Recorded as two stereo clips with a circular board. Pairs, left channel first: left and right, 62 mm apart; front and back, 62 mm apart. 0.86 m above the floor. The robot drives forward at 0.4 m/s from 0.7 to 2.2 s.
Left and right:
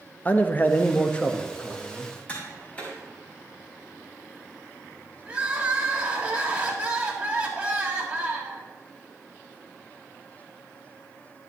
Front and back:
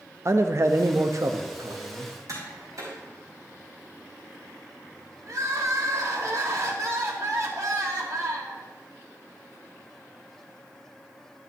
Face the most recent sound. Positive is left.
turn(degrees=-160)